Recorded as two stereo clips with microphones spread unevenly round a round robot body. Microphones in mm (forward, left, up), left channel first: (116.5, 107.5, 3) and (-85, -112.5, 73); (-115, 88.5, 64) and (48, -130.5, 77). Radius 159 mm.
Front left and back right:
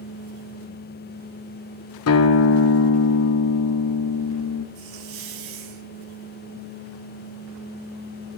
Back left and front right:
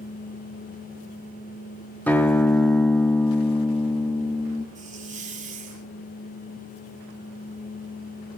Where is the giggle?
I don't hear a giggle.